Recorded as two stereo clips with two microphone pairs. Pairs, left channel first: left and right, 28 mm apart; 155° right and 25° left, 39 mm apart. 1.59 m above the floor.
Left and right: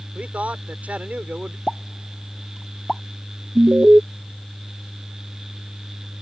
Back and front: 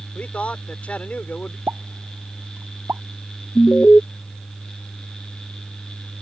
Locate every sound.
0.1 s a man speaking: 100° right
1.7 s a pop: 25° left
3.5 s an alarm: 105° right